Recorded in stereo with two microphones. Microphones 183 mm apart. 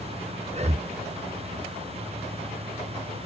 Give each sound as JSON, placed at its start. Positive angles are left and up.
{"t": 0.5, "sound": "breathing", "side_deg": -35, "distance_m": 0.8}